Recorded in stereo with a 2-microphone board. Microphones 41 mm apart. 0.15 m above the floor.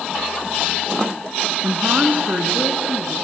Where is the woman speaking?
40° right (ahead or behind), 1.9 m.